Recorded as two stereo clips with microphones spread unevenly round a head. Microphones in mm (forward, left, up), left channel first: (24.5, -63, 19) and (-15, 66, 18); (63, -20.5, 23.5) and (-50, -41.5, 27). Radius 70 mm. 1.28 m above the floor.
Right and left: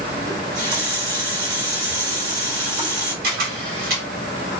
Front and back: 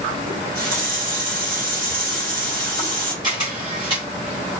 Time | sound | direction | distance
0.3 | a running tap | 170° left | 2.5 m
3.2 | a camera shutter | 130° left | 1.9 m